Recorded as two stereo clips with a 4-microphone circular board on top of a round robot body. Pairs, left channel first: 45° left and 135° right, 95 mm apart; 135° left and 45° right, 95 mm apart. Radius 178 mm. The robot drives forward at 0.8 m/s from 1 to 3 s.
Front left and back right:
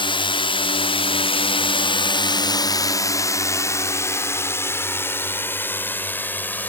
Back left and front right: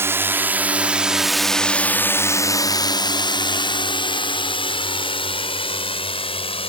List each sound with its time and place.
0.0 s a drone: 20° left; by 6.7 s 115° left